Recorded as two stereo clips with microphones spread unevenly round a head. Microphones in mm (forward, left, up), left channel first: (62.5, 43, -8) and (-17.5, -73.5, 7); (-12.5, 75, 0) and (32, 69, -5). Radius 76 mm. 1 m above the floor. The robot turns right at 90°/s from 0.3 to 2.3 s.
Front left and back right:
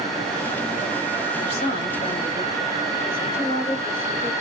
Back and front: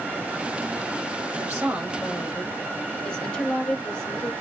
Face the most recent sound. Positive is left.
turn(degrees=105)